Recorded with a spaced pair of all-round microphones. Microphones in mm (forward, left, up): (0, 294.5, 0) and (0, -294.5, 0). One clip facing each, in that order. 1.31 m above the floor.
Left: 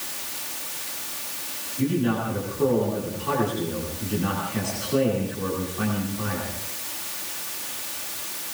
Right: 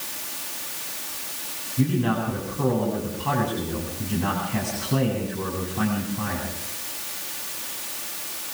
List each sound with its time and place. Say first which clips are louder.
1.8 s a man speaking: even; 75° right (ahead or behind), 9 m